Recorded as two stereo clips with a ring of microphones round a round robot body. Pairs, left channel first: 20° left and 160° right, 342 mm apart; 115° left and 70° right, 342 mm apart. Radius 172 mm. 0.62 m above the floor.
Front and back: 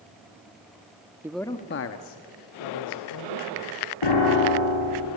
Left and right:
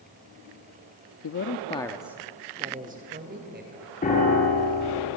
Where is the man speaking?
125° left, 1.0 m; by 3.9 s 5° right, 3.5 m.